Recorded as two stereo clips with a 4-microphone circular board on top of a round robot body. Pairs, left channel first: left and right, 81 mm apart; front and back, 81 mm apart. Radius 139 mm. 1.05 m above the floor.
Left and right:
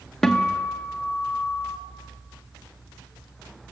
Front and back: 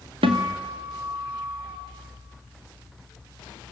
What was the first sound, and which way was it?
A guitar, 175° left.